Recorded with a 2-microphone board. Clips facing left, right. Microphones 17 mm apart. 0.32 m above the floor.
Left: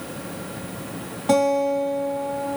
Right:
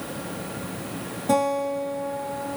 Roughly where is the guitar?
Left.